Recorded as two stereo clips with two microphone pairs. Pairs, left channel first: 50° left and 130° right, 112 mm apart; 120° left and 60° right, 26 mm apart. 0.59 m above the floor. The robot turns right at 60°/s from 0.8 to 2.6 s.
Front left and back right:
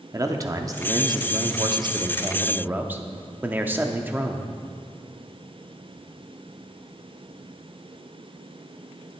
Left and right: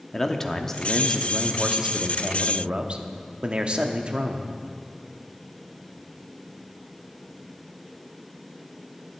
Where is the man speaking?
170° right, 0.7 m; by 4.5 s 60° right, 0.7 m.